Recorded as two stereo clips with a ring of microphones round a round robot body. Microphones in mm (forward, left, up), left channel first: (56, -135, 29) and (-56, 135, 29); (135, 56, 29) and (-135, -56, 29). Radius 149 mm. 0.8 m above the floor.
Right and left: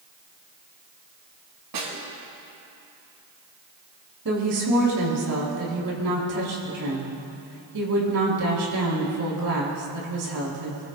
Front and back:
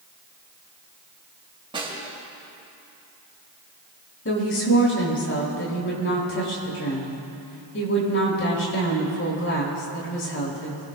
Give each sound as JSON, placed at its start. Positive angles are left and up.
{"t": 1.7, "sound": "a snare drum", "azimuth_deg": 130, "distance_m": 5.5}
{"t": 4.2, "sound": "a woman speaking", "azimuth_deg": 75, "distance_m": 7.0}